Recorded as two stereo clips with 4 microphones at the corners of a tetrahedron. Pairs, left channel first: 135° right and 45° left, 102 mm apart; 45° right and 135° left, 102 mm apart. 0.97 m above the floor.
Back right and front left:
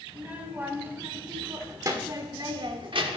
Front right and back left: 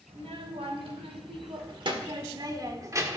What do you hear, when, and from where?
0.1 s a child speaking: 120° left, 2 m; by 3.2 s 70° left, 1.3 m